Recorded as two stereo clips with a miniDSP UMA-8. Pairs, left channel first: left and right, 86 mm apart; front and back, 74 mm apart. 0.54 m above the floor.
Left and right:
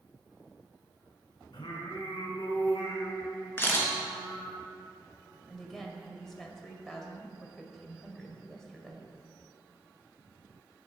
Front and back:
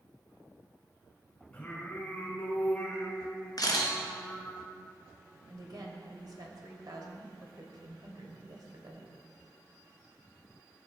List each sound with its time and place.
1.5 s singing: 70° left, 2.5 m
3.6 s a camera shutter: 25° left, 2.5 m
5.5 s a woman speaking: 175° left, 2 m